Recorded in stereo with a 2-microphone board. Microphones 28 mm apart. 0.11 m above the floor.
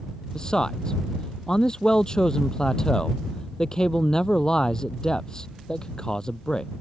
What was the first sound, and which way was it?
A man speaking, 30° left (ahead or behind).